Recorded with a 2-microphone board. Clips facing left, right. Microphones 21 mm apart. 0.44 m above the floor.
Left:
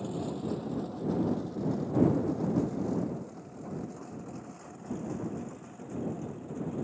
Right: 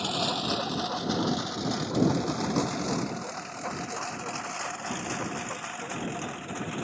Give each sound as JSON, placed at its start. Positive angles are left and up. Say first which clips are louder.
{"t": 0.0, "sound": "a lawn mower", "louder": "right 7 dB", "side_deg": -90}